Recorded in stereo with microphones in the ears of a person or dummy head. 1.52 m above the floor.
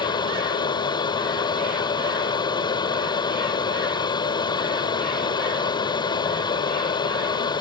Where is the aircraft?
25° left (ahead or behind).